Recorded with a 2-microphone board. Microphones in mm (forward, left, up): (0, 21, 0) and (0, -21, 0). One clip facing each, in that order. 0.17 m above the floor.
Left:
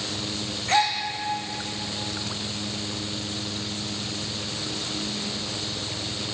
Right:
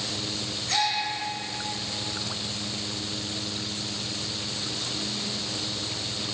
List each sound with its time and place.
0.7 s a gasp: 35° left (ahead or behind), 1.7 m